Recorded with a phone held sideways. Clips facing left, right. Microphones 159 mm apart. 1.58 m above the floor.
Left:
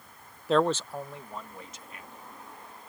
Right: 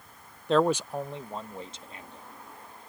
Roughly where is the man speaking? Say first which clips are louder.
Right 1 dB; centre.